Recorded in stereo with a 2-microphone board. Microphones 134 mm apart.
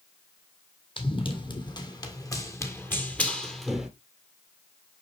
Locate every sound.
1.0 s running footsteps: 40° left (ahead or behind), 2.5 m; by 3.9 s 5° right (ahead or behind), 1.6 m